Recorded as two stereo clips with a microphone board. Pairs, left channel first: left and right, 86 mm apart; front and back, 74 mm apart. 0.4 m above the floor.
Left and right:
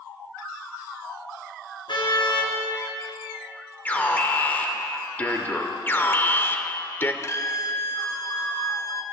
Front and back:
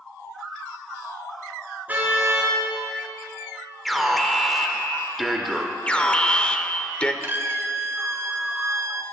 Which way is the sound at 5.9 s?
60° left.